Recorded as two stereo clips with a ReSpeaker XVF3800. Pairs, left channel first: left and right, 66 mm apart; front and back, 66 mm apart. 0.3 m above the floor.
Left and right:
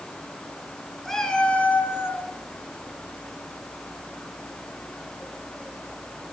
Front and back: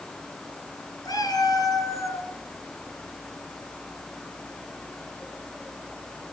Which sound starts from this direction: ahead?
A cat meowing, at 1.1 s.